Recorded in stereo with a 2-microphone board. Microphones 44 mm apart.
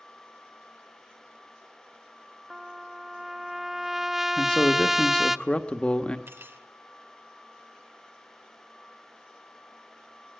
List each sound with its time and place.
2.5 s a trumpet: 10° right (ahead or behind), 0.6 m
4.4 s a man speaking: 25° left (ahead or behind), 1.3 m
6.3 s cutlery clinking: 65° right (ahead or behind), 1.8 m